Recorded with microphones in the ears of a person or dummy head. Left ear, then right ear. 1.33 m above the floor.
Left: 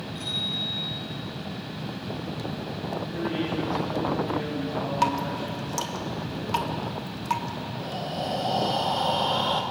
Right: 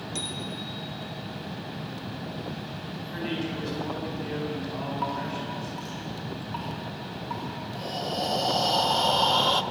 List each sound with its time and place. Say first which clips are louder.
0.1 s a bicycle bell: left 7 dB; 65° right (ahead or behind), 3.5 m
3.1 s a man speaking: left 1 dB; 85° right, 8 m
5.0 s dripping: left 7 dB; 80° left, 2.5 m
7.8 s breathing: right 3 dB; 25° right (ahead or behind), 1.1 m